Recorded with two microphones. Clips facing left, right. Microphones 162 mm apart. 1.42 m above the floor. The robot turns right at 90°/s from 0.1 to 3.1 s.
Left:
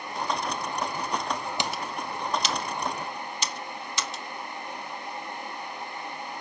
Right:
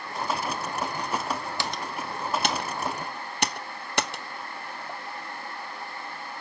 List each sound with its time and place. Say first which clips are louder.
1.6 s typing on a keyboard: left 1 dB; 20° left (ahead or behind), 0.8 m; by 5.0 s 55° right (ahead or behind), 0.8 m